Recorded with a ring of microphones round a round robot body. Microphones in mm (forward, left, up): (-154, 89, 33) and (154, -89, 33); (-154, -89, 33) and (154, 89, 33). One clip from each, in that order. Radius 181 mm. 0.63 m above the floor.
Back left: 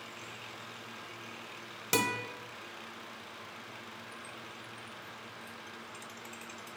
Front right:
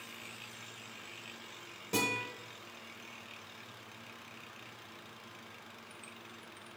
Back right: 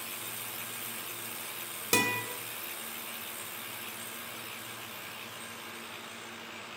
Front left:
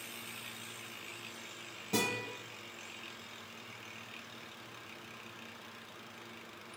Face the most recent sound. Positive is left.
turn(degrees=-160)